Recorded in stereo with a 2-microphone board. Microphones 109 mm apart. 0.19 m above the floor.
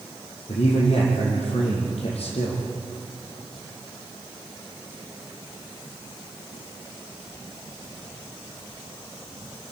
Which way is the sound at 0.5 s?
70° left (ahead or behind).